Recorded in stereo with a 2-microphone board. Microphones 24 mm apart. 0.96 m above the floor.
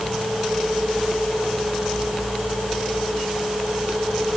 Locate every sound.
Only background noise.